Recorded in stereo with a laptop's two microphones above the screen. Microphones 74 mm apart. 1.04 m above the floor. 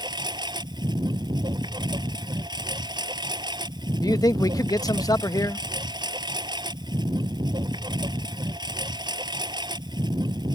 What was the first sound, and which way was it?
A lawn mower, 85° right.